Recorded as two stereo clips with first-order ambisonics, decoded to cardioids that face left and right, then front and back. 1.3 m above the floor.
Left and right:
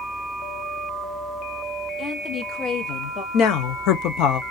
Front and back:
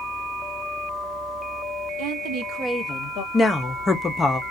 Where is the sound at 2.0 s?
165° left, 1.2 m; by 3.2 s 35° left, 0.9 m.